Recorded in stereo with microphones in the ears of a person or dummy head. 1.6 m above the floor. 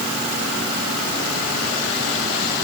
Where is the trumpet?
I don't hear a trumpet.